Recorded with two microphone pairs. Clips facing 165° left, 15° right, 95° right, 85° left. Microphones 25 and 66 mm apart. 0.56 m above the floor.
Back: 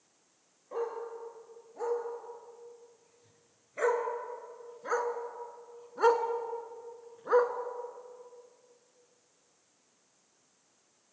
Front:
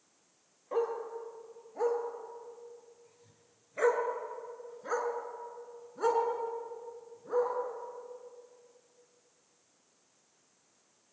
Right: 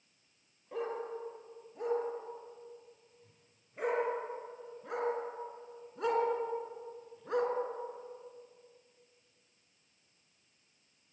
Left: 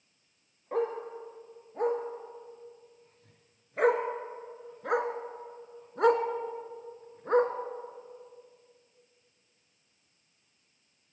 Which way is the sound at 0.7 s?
50° left.